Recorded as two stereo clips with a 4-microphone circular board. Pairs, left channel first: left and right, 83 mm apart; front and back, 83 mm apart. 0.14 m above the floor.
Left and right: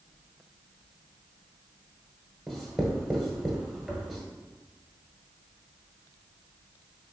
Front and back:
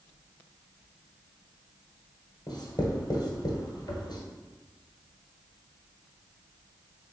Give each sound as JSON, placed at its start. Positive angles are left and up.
{"t": 2.5, "sound": "writing", "azimuth_deg": 0, "distance_m": 1.1}